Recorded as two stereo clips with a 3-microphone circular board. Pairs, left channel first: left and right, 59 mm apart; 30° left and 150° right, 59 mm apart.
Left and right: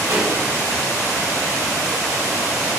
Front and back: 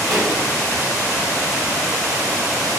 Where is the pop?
65° right, 2.5 m.